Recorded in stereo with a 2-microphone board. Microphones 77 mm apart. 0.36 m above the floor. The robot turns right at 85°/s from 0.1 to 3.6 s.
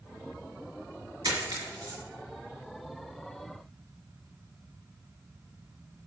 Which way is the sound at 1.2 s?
70° right (ahead or behind).